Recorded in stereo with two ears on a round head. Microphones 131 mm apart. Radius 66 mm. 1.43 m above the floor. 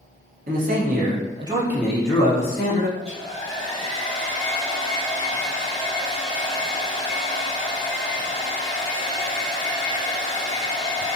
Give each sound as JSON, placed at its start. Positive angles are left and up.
{"t": 0.5, "sound": "a man speaking", "side_deg": -65, "distance_m": 0.8}
{"t": 3.0, "sound": "a hair dryer", "side_deg": -85, "distance_m": 1.5}